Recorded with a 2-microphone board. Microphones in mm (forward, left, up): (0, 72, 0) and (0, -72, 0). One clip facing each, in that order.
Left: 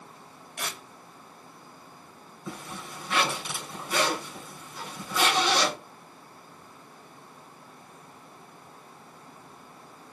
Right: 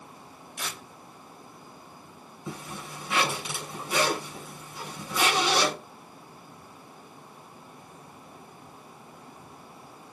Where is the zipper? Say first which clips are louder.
Right 1 dB; 5° right (ahead or behind), 2.5 m.